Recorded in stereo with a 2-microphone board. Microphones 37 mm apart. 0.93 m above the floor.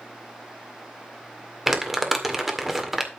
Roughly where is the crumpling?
Centre.